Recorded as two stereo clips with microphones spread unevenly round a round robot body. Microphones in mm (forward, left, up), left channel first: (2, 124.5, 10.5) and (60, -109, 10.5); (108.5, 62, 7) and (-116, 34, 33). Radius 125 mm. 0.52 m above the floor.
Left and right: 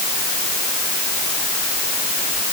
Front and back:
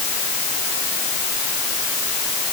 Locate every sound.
Only background noise.